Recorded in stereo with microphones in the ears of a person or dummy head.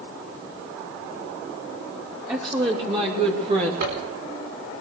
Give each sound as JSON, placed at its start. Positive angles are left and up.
{"t": 2.3, "sound": "a woman speaking", "side_deg": -20, "distance_m": 3.5}
{"t": 3.8, "sound": "a zipper", "side_deg": -60, "distance_m": 3.5}